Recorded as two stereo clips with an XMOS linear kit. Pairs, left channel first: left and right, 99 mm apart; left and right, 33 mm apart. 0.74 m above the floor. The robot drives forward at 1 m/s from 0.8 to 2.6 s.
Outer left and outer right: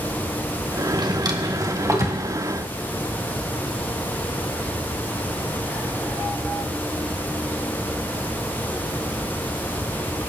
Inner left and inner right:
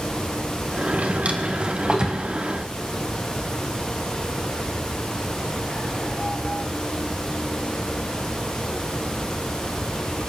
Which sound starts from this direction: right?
A drawer, at 0.9 s.